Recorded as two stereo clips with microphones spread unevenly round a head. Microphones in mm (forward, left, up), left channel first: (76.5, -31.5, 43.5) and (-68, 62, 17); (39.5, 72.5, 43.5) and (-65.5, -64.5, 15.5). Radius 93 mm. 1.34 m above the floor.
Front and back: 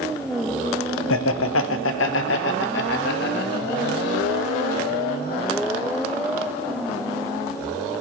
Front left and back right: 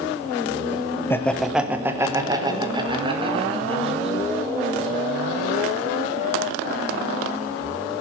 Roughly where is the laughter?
Ahead right.